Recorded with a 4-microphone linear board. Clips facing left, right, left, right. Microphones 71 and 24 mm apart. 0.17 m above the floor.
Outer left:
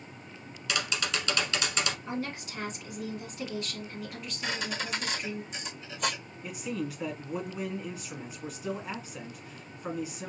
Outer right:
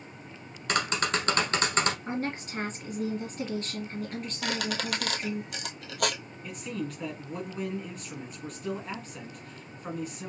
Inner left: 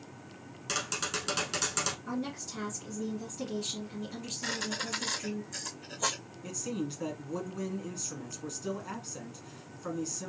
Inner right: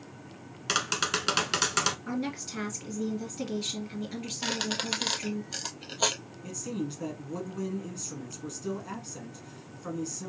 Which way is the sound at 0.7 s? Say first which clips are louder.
Outer right 4 dB, inner right 5 dB; 45° right (ahead or behind).